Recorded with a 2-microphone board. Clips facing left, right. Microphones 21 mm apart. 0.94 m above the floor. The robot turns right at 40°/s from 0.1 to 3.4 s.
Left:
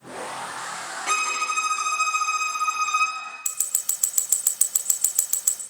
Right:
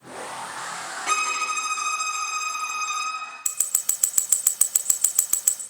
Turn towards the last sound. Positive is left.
turn(degrees=-40)  # may be behind; listen again after turning